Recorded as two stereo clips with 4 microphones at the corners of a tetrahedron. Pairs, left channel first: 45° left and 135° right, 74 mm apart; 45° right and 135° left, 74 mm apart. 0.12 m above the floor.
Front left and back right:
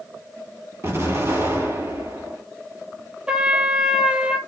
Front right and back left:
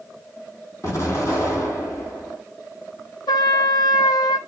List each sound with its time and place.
0.8 s an explosion: 85° right, 1.9 m
3.3 s a trumpet: 60° right, 0.6 m